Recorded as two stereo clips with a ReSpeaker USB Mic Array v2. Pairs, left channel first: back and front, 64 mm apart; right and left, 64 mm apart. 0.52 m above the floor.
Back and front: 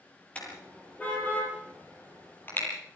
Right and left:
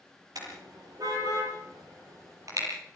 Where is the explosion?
I don't hear an explosion.